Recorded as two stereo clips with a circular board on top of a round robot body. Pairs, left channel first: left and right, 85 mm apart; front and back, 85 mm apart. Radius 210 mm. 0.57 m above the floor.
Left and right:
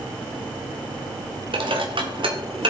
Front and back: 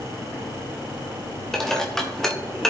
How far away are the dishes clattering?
About 1.9 m.